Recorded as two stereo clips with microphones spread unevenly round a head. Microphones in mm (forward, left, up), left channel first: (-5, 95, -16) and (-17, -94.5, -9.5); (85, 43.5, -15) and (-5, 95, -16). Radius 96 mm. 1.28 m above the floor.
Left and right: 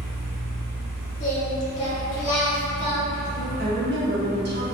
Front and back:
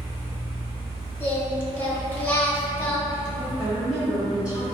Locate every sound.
0.0 s a fan: 140° left, 1.2 m
1.2 s singing: 35° left, 0.8 m
3.6 s a woman speaking: 125° right, 0.9 m